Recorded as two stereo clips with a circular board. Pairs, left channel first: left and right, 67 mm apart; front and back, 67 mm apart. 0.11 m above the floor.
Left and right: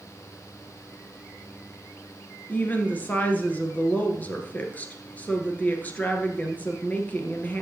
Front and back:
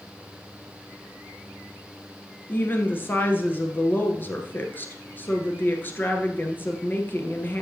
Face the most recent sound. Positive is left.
turn(degrees=40)